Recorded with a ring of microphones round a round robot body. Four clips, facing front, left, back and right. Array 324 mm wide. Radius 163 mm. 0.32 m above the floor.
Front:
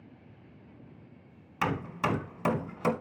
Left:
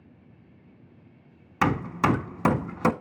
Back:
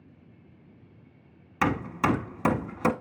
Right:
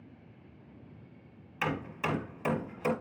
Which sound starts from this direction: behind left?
Hammering, at 1.6 s.